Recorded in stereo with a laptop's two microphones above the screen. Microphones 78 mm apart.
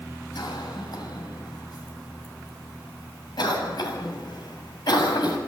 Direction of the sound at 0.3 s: 65° left (ahead or behind).